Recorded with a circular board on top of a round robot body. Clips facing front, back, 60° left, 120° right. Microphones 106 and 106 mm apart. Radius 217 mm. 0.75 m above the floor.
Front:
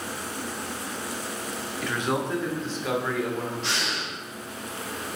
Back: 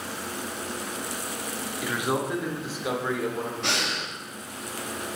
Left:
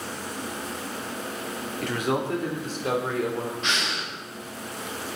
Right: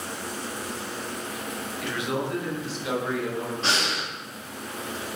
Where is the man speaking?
100° left, 2.5 m.